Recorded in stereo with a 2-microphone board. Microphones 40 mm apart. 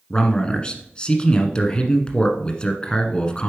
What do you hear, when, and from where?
0.1 s a man speaking: 25° left (ahead or behind), 1.2 m